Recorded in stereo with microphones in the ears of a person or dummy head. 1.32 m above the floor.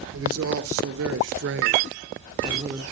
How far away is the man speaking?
About 1.6 m.